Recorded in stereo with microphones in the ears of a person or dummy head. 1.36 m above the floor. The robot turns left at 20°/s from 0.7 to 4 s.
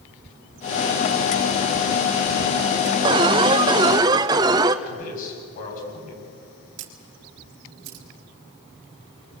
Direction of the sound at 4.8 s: 45° left (ahead or behind).